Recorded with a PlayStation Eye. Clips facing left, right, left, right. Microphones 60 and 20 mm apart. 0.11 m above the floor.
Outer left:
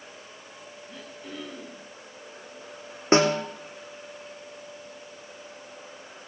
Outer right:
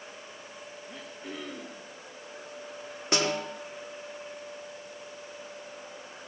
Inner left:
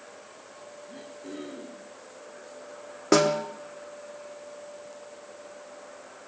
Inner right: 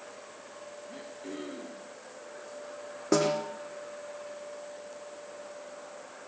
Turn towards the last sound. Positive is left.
turn(degrees=35)  # may be behind; listen again after turning